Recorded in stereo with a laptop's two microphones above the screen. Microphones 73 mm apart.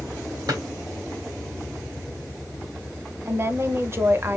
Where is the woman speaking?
35° right (ahead or behind), 0.8 m.